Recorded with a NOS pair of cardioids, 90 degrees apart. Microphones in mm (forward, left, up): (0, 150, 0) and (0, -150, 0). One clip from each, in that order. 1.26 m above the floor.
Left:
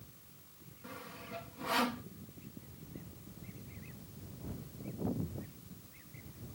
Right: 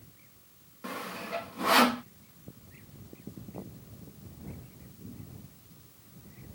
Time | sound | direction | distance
0.8 | sawing | 65° right | ?